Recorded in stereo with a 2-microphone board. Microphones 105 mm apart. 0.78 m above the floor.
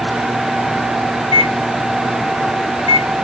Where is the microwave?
70° left (ahead or behind), 0.6 m.